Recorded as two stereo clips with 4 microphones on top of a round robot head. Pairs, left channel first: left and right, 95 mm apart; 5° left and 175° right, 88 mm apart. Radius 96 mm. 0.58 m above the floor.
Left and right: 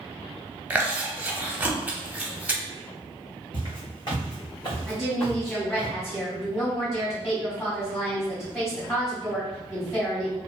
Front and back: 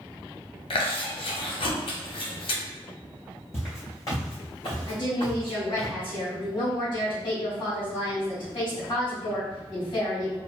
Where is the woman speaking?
20° left, 1.5 m.